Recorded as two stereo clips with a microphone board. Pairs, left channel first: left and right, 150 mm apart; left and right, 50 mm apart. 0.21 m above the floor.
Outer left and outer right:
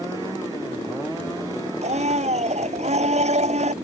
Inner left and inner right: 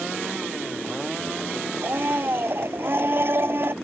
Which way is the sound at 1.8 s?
50° right (ahead or behind).